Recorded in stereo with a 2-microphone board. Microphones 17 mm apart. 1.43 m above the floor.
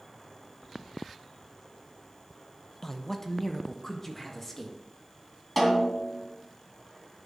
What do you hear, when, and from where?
2.8 s a man speaking: 15° left (ahead or behind), 0.8 m; by 4.8 s 10° left (ahead or behind), 1.8 m
5.6 s a snare drum: 10° right (ahead or behind), 3 m